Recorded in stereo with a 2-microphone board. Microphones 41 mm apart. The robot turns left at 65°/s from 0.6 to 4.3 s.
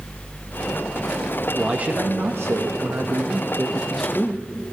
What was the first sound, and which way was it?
A man speaking, 25° right.